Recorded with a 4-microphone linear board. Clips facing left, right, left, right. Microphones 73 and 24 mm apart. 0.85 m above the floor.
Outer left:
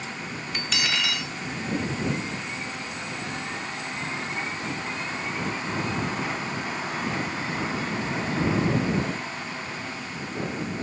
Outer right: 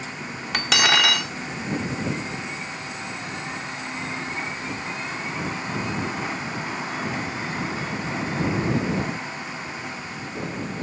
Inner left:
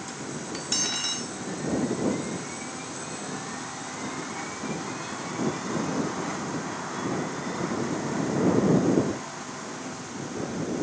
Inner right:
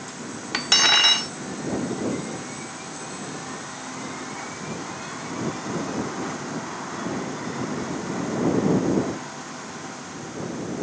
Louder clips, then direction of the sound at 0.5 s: Outer right 8 dB, inner right 13 dB; 80° right.